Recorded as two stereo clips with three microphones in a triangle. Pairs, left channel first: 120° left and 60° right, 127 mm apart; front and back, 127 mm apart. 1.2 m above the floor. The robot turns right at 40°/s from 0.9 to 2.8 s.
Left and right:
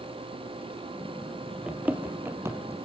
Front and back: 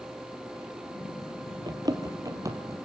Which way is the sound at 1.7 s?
140° right.